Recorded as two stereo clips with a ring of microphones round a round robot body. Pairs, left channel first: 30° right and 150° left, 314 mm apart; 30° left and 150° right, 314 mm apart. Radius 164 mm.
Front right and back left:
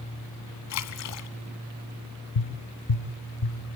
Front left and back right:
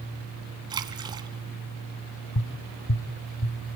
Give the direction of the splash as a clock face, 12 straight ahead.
2 o'clock.